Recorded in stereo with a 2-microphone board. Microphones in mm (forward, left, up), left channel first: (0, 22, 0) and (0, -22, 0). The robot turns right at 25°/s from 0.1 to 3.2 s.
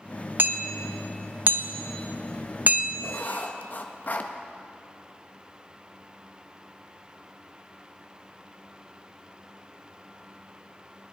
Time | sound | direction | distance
0.4 | hammering | 45° right (ahead or behind) | 0.7 m
3.0 | writing | 40° left (ahead or behind) | 1.0 m